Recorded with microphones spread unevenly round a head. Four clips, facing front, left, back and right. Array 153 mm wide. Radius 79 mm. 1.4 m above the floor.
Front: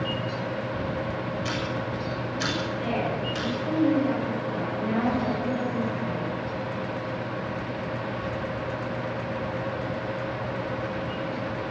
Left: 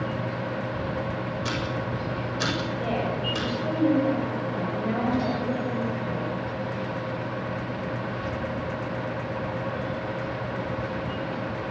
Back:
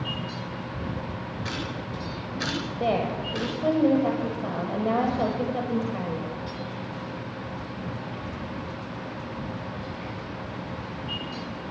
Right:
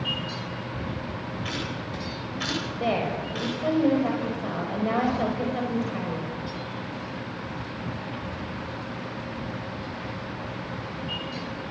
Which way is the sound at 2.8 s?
165° right.